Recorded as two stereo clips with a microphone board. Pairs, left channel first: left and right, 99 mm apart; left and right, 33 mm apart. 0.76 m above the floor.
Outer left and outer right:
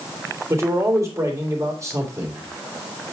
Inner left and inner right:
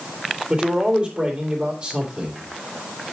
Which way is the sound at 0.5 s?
30° right (ahead or behind).